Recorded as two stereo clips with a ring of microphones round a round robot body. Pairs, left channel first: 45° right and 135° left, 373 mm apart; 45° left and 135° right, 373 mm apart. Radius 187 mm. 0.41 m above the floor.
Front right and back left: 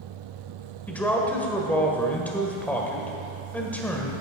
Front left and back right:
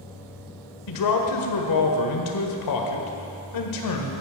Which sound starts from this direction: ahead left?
A man speaking, at 0.9 s.